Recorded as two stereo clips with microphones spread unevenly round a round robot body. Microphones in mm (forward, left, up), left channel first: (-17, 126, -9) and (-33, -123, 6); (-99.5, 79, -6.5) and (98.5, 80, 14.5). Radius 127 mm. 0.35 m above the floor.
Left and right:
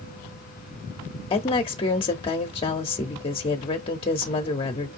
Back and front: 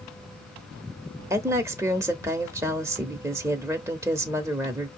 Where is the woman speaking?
70° left, 0.8 m.